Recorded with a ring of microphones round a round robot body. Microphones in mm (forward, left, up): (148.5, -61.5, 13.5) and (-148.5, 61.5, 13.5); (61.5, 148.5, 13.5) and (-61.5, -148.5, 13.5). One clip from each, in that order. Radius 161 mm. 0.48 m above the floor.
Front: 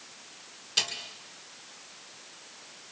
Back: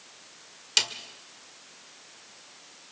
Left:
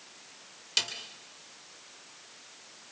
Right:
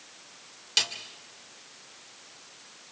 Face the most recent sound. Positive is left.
turn(degrees=160)